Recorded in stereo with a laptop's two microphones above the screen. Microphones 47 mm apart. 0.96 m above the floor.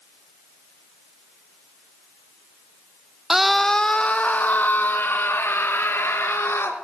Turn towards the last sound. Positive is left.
turn(degrees=60)  # may be behind; listen again after turning